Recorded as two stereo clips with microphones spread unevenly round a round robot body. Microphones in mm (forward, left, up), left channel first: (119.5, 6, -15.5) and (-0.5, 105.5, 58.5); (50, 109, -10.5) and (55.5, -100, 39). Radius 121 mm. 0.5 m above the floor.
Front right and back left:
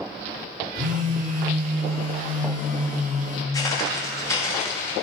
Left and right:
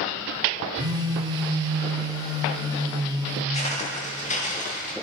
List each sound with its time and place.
0.8 s a phone buzzing: 165° right, 1.1 m
3.5 s footsteps: 30° left, 6 m; by 4.9 s 40° left, 6 m